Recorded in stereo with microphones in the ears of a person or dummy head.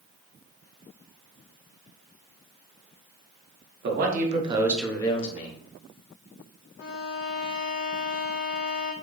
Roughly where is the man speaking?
Right.